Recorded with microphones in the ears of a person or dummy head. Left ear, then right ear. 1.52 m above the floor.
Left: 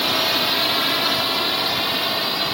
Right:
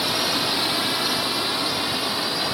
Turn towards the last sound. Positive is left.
turn(degrees=25)  # may be behind; listen again after turning